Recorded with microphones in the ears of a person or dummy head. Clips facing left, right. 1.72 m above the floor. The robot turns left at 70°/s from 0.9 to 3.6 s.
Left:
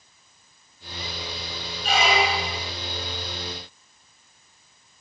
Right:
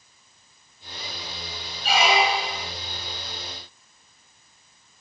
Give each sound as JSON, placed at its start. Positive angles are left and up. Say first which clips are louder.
{"t": 1.8, "sound": "a squeak", "louder": "right 1 dB", "azimuth_deg": 0, "distance_m": 1.2}